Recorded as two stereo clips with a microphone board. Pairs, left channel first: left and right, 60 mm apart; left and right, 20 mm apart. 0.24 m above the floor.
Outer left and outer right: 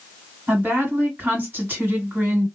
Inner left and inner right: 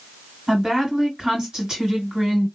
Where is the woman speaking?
40° right (ahead or behind), 1.9 m.